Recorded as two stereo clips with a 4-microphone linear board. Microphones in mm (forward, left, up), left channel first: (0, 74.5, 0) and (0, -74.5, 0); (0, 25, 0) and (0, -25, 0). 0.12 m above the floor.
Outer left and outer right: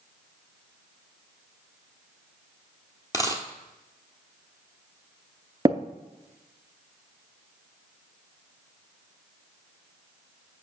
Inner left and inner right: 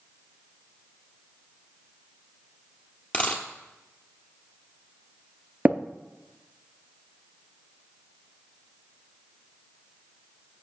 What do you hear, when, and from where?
3.1 s a dropped coin: 25° left (ahead or behind), 1.2 m
5.7 s tapping: 25° right (ahead or behind), 0.5 m